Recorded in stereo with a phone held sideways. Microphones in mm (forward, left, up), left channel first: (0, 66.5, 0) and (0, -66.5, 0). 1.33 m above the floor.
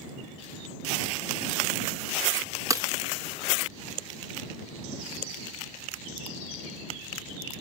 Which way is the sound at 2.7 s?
25° right (ahead or behind).